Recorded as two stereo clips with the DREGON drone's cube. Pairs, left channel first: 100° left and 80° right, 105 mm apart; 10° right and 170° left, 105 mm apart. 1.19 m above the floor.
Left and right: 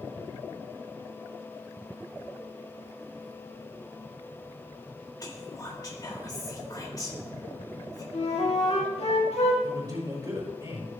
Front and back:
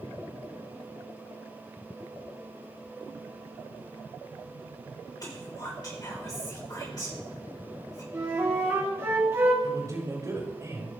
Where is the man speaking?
135° right, 4 m.